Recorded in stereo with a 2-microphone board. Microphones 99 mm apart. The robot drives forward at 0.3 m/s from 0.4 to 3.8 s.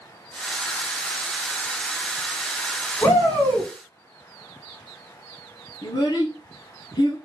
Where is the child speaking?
40° left (ahead or behind), 1.8 m.